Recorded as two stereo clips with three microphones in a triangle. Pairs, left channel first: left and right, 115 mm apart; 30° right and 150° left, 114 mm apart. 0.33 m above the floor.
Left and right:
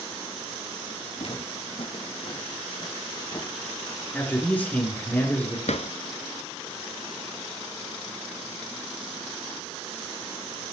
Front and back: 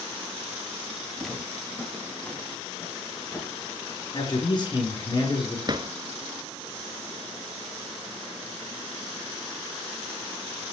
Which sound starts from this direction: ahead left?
Footsteps, at 1.2 s.